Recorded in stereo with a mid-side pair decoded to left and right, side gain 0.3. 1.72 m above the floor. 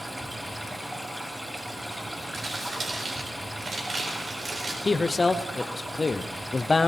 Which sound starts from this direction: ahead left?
A man speaking, at 4.8 s.